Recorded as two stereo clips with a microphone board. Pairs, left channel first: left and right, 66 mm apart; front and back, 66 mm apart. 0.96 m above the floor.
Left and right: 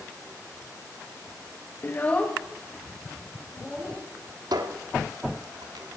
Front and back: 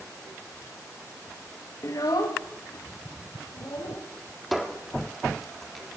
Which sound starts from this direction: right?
A squeak, at 4.5 s.